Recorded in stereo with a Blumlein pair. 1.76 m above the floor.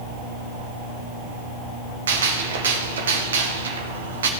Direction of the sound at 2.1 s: 65° right.